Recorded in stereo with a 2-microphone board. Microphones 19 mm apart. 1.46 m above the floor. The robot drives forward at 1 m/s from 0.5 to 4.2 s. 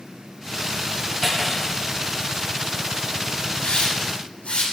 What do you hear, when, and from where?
1.2 s cutlery clinking: 15° left (ahead or behind), 5.5 m; by 1.7 s 20° left (ahead or behind), 5 m
3.6 s a hiss: 85° left, 7 m